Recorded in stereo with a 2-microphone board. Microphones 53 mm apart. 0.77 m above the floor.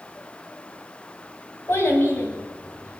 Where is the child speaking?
55° left (ahead or behind), 2.5 m; by 3.0 s 70° left (ahead or behind), 3 m.